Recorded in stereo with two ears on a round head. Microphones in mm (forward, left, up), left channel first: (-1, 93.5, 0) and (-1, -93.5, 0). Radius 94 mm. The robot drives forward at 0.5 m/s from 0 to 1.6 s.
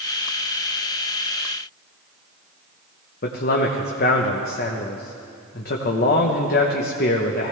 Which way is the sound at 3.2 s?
45° left (ahead or behind).